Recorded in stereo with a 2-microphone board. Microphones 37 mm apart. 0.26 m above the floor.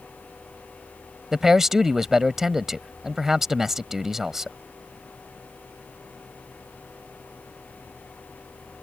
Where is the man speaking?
10° right (ahead or behind).